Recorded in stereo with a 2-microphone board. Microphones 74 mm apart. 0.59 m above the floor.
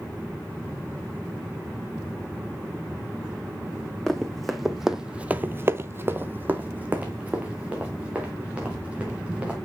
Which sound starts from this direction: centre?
Running footsteps, at 4.1 s.